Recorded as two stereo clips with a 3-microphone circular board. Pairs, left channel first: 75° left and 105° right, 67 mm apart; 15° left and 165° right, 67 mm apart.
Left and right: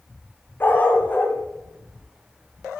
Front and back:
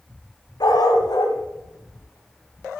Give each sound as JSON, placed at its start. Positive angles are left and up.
{"t": 0.6, "sound": "a dog barking", "azimuth_deg": 15, "distance_m": 2.0}